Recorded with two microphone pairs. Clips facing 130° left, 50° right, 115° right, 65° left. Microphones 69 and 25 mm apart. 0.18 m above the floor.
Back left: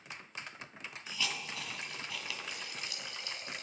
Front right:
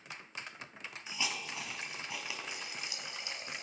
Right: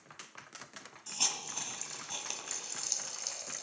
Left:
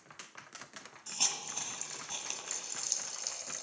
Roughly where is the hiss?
Ahead right.